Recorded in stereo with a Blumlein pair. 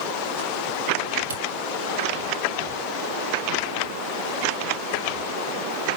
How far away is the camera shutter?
About 1.4 m.